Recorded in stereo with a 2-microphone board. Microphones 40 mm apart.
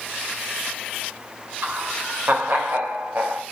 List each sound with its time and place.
1.6 s laughter: 55° right (ahead or behind), 2.5 m